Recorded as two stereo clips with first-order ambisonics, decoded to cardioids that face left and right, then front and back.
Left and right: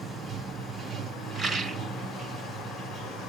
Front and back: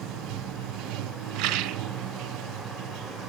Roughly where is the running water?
Behind.